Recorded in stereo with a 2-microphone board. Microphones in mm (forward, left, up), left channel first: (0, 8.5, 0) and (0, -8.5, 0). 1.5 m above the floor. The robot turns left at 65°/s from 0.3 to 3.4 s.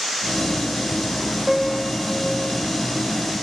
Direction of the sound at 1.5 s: 15° right.